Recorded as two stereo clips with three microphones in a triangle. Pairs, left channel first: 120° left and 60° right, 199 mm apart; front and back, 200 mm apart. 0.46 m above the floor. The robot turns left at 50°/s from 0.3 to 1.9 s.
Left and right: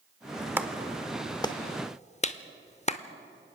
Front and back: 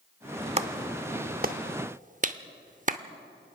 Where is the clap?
135° right, 0.7 m; by 3.0 s 155° left, 0.7 m.